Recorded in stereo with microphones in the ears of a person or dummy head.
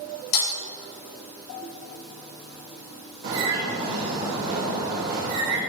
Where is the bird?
60° right (ahead or behind), 3 m.